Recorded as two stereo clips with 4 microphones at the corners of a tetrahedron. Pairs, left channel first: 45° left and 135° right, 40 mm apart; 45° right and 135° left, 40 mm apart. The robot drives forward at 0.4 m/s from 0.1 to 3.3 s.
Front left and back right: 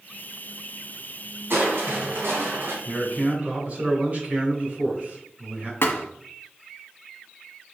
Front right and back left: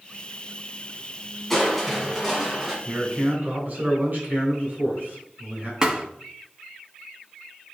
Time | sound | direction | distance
1.5 | crushing | 130° right | 1.9 m
2.9 | a man speaking | 175° left | 3.5 m
5.8 | a thud | 65° left | 0.9 m